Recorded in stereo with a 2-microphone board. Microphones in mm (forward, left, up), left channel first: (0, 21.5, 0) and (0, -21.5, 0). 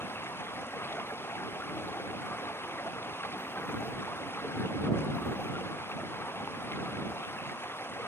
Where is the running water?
65° left (ahead or behind).